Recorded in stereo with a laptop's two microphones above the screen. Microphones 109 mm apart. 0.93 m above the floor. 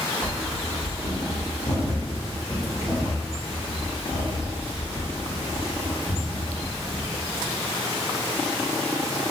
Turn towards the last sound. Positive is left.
turn(degrees=-15)  # may be behind; listen again after turning